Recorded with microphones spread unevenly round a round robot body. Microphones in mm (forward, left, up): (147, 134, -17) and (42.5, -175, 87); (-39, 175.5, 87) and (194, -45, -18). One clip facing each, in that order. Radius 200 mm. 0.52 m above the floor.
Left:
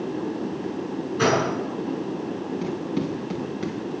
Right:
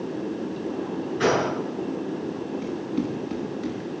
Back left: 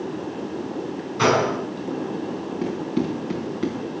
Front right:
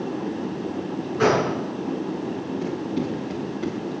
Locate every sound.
1.2 s a gunshot: 95° left, 5.5 m
2.6 s running footsteps: 75° left, 4 m; by 3.8 s 85° left, 5 m